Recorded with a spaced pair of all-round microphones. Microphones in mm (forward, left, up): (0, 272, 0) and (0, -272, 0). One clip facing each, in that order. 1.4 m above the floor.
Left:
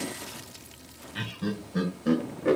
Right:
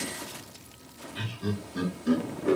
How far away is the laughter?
About 1.7 m.